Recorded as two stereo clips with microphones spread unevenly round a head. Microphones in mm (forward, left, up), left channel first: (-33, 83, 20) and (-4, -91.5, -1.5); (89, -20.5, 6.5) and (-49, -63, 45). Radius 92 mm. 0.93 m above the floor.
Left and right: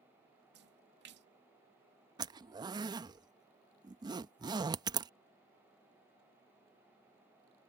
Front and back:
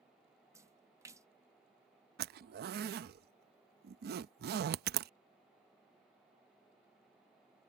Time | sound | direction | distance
0.5 | a splash | 90° right | ?
2.2 | a zipper | 150° right | ?